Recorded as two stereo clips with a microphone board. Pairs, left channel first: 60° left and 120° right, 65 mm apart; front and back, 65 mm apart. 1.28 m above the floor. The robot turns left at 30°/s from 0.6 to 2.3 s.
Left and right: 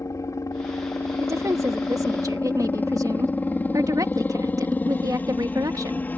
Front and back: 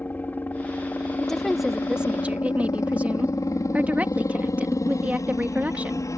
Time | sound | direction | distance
0.0 | a helicopter | 55° left | ?
1.2 | a woman speaking | 80° right | ?